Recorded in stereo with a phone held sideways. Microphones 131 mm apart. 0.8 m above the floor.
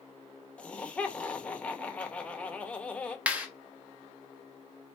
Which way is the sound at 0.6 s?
10° left (ahead or behind).